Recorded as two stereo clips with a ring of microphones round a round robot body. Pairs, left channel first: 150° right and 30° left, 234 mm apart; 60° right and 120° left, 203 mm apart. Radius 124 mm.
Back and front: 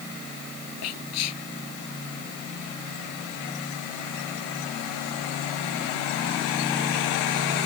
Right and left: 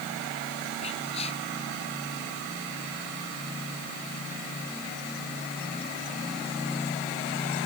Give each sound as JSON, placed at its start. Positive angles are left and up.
{"t": 0.8, "sound": "whispering", "azimuth_deg": -125}